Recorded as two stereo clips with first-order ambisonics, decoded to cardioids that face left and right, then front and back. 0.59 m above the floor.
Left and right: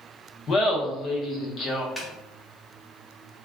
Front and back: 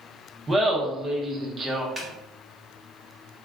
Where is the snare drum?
150° left, 0.6 m.